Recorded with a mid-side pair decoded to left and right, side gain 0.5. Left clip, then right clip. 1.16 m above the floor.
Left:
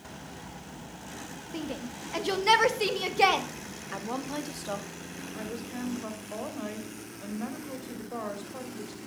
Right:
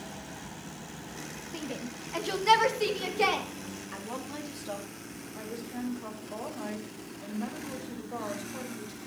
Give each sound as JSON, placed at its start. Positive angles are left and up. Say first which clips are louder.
{"t": 1.5, "sound": "a shout", "louder": "left 2 dB", "azimuth_deg": 5, "distance_m": 2.0}
{"t": 3.9, "sound": "a woman speaking", "louder": "left 6 dB", "azimuth_deg": 30, "distance_m": 2.5}
{"t": 5.3, "sound": "a woman speaking", "louder": "left 1 dB", "azimuth_deg": 15, "distance_m": 4.5}